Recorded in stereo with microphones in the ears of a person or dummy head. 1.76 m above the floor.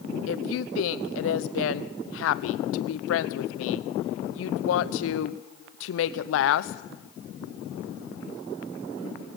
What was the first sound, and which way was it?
A woman speaking, 85° left.